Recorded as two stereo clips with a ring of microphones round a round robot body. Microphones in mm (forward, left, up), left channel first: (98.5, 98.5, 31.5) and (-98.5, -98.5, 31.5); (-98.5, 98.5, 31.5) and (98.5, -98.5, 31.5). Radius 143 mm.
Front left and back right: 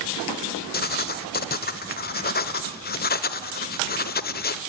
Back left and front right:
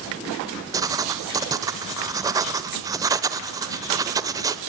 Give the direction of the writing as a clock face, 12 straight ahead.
11 o'clock.